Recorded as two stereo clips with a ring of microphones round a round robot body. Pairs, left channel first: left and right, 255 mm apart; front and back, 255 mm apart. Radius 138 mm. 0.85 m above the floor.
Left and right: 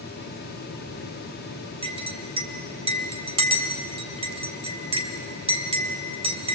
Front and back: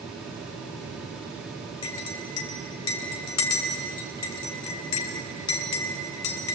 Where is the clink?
20° right, 3.5 m.